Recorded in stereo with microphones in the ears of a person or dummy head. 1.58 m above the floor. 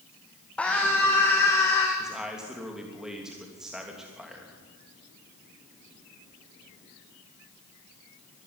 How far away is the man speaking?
About 3 m.